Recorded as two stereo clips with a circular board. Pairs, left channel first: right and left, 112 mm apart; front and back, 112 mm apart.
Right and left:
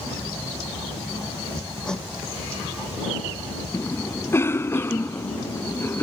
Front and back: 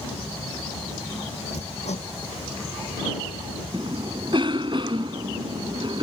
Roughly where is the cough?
Behind right.